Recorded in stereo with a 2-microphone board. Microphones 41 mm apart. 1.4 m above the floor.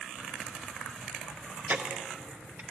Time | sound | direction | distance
1.7 | ticking | 55° right (ahead or behind) | 0.8 m